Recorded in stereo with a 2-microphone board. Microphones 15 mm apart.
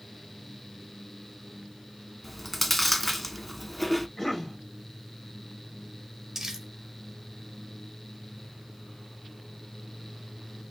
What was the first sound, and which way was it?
Chewing, 15° left (ahead or behind).